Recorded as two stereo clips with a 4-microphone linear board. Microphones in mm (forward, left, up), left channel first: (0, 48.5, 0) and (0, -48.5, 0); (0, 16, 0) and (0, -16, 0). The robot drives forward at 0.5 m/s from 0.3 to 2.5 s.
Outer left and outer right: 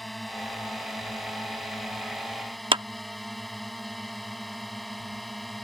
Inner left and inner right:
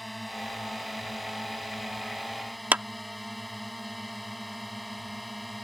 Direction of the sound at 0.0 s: Centre (ahead or behind).